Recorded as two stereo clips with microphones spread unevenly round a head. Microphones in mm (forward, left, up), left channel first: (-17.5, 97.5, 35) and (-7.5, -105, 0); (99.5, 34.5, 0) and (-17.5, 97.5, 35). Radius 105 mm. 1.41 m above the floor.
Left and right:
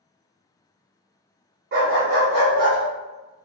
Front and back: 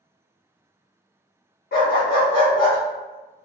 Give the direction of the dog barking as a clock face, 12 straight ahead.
1 o'clock.